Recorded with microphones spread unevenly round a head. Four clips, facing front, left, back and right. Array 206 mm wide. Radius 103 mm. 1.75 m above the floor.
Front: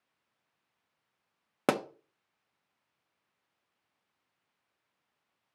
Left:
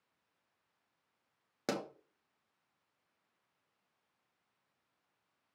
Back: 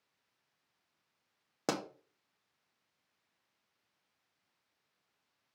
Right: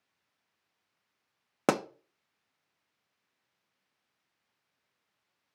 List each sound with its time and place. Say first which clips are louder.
1.7 s a pop: right 10 dB, front 7 dB; 65° right, 0.6 m